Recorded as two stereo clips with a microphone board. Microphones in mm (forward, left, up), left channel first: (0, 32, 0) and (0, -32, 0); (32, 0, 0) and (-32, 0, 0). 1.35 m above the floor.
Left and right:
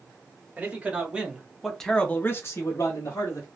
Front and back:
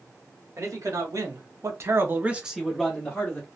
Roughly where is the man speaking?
Behind right.